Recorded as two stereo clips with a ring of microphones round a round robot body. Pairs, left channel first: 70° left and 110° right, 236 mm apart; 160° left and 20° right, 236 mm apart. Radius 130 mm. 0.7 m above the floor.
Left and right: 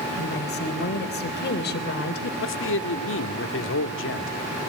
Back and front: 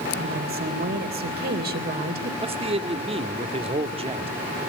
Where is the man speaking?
40° left, 1.9 m.